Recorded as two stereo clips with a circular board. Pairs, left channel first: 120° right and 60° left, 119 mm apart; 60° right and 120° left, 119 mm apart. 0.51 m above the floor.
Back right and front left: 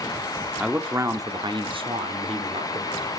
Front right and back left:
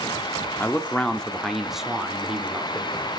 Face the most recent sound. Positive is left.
turn(degrees=45)